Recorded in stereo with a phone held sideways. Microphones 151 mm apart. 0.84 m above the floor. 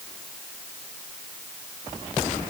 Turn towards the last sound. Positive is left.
No sound to turn to.